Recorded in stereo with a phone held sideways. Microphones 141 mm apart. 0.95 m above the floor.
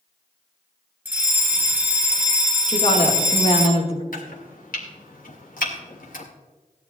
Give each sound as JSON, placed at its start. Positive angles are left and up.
{"t": 1.1, "sound": "a fire alarm", "side_deg": -15, "distance_m": 3.5}
{"t": 2.7, "sound": "a woman speaking", "side_deg": 45, "distance_m": 2.5}
{"t": 4.1, "sound": "chopping", "side_deg": 75, "distance_m": 2.0}